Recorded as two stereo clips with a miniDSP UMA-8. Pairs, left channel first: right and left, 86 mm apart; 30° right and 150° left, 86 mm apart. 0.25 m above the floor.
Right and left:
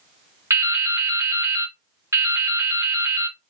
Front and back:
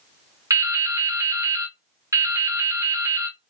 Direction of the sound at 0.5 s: 130° left.